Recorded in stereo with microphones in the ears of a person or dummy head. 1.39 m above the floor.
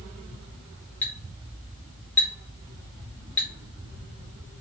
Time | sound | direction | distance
1.0 | a clink | 10° left (ahead or behind) | 1.3 m